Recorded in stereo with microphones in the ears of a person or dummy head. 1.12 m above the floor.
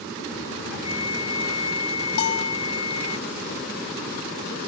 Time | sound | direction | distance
0.8 | a flute | 85° left | ?
2.2 | a bell | 55° left (ahead or behind) | ?